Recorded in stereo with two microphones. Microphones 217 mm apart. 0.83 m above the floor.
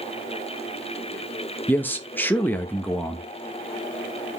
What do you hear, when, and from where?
1.7 s a man speaking: 10° left (ahead or behind), 0.6 m